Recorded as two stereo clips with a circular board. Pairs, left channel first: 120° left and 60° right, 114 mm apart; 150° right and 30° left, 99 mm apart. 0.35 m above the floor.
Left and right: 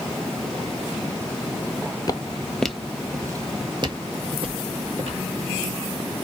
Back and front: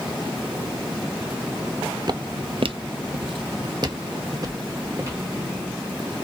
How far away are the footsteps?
About 0.6 m.